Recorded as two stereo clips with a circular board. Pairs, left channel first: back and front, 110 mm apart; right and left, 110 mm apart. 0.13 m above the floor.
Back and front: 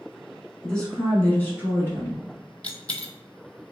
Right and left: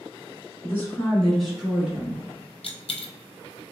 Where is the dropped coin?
100° right, 0.6 m.